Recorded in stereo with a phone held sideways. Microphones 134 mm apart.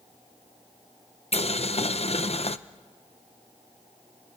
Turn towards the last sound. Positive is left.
turn(degrees=50)  # may be behind; listen again after turning